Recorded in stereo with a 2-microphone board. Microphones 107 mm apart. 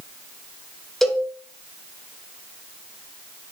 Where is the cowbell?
Centre (ahead or behind), 1.5 m.